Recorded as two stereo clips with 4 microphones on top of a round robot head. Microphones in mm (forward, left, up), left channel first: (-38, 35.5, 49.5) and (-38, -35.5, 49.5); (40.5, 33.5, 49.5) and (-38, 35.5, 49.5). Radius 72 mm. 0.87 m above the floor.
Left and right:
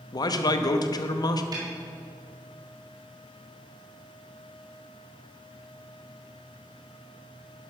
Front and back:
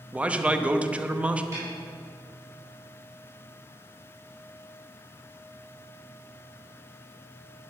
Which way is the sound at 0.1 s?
105° left.